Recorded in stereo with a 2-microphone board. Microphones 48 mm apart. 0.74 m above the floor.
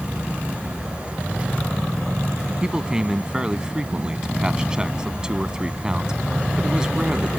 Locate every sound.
2.6 s a man speaking: 15° right (ahead or behind)